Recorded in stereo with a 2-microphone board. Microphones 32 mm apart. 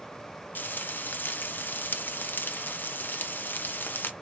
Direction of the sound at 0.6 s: 85° left.